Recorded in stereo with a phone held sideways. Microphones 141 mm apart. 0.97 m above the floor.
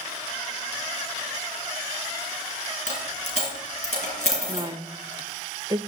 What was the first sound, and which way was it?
A dropped coin, 60° left (ahead or behind).